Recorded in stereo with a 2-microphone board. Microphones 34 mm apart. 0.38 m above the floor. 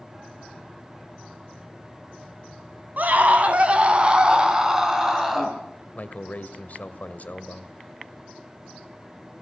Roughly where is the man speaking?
Left.